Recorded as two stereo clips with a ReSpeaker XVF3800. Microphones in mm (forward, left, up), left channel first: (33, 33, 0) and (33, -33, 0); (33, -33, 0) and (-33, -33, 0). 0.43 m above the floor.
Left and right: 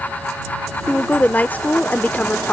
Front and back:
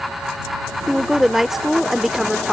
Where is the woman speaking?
100° left.